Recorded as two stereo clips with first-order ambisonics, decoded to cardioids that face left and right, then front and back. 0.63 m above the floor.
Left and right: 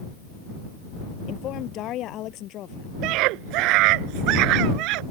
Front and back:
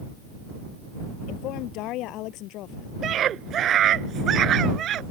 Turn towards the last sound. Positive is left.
turn(degrees=-120)